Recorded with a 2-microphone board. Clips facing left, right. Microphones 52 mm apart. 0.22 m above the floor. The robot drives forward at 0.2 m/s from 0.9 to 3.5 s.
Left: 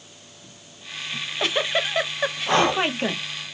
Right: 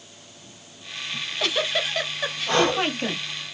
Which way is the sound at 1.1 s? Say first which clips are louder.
Left 1 dB; 20° left (ahead or behind).